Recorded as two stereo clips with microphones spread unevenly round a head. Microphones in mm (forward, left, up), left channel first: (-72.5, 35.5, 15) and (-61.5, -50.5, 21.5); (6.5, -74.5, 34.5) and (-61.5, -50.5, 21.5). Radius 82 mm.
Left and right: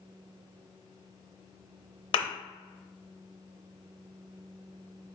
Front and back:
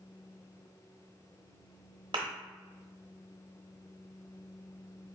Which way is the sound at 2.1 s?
100° left.